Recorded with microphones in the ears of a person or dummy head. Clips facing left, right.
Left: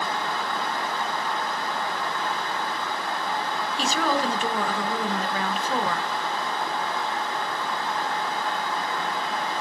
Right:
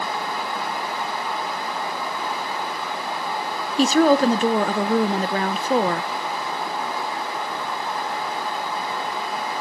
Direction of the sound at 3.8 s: 35° right (ahead or behind).